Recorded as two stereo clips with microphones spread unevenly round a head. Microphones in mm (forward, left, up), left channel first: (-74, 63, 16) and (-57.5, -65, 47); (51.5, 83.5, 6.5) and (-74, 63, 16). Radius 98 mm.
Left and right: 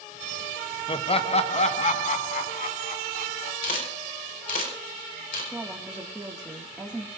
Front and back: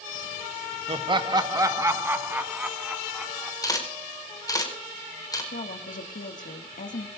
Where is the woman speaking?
10° left, 2.0 m.